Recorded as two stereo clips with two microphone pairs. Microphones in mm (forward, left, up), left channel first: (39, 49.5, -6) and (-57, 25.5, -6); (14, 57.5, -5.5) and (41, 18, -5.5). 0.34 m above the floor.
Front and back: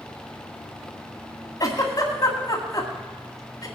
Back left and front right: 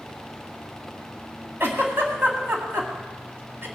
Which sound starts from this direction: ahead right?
A giggle, at 1.6 s.